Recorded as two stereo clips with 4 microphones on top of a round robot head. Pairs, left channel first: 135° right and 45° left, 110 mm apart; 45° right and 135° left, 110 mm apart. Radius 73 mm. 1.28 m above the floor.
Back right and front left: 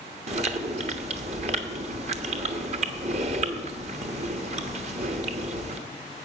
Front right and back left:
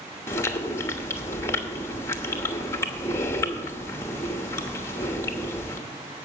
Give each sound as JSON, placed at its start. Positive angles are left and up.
{"t": 0.3, "sound": "chewing", "azimuth_deg": 20, "distance_m": 1.0}